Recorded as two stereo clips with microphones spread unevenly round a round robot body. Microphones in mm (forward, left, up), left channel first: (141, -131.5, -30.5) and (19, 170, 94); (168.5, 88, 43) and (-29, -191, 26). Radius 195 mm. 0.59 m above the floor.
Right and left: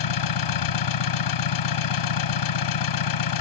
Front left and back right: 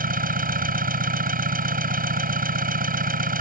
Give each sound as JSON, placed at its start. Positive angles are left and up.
{"t": 0.0, "sound": "an engine running", "azimuth_deg": -60}